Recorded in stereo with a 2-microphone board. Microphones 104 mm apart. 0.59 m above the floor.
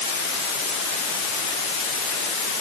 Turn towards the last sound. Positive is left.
No sound to turn to.